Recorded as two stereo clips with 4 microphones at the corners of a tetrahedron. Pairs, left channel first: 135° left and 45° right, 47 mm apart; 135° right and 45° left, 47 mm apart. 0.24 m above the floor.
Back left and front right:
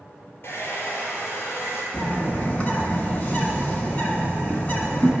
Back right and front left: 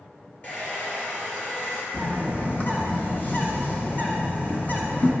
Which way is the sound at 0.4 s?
175° left.